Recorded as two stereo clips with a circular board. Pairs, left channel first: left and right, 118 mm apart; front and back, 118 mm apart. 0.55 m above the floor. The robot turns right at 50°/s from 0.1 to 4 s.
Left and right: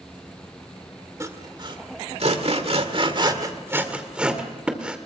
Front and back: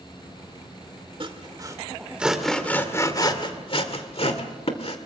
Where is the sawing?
150° right, 2.0 m; by 5.0 s 10° right, 2.0 m.